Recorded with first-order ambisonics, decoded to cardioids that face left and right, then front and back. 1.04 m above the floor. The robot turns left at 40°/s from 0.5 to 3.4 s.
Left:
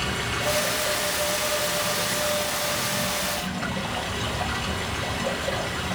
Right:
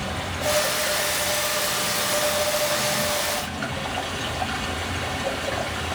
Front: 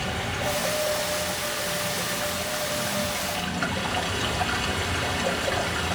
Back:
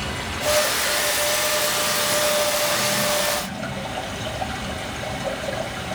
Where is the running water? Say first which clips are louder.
Left 1 dB, back 2 dB; 100° left, 2.5 m; by 6.0 s 15° right, 2.5 m.